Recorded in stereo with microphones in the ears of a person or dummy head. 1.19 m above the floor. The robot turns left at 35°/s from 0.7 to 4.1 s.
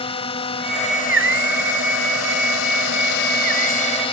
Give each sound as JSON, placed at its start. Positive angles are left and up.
{"t": 0.0, "sound": "a drone", "azimuth_deg": 140}